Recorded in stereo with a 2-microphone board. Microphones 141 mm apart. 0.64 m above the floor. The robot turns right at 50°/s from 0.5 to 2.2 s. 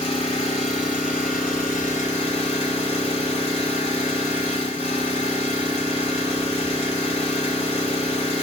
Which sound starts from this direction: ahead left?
An engine running, at 0.0 s.